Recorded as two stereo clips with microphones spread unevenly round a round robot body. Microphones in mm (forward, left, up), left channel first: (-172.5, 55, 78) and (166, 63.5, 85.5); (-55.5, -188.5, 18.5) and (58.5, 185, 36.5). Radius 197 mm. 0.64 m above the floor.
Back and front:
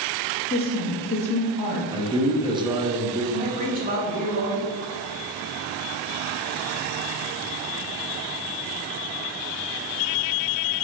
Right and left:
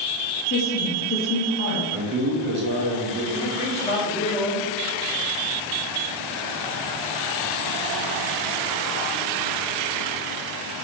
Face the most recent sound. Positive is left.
turn(degrees=-50)